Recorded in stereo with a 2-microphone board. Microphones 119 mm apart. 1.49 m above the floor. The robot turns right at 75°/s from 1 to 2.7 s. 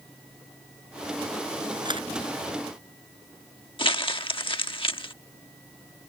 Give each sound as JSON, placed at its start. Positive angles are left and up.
{"t": 1.9, "sound": "a camera shutter", "side_deg": -35}
{"t": 3.8, "sound": "crumpling", "side_deg": 45}